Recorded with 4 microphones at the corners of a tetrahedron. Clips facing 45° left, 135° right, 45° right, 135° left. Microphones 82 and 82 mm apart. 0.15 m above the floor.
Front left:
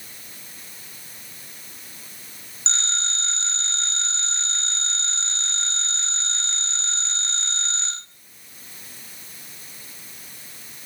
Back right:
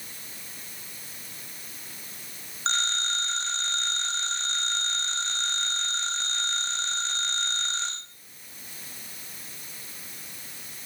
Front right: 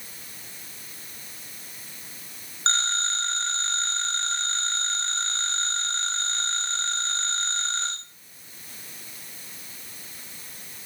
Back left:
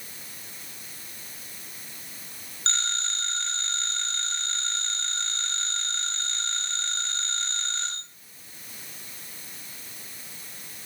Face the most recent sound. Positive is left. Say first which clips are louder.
# back right 3 dB, front right 5 dB
turn(degrees=-95)